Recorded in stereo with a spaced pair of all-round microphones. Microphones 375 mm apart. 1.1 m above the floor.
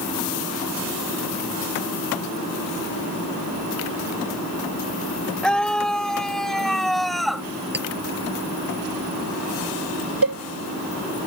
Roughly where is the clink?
Right.